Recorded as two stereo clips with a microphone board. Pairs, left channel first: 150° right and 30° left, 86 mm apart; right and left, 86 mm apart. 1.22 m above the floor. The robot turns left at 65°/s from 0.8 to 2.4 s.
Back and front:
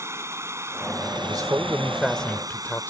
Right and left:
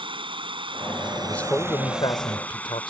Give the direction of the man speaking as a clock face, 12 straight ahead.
12 o'clock.